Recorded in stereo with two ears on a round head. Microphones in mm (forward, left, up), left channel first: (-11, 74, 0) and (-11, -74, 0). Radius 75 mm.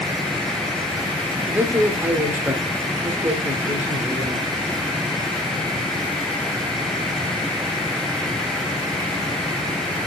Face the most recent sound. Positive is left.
turn(degrees=-10)  # may be behind; listen again after turning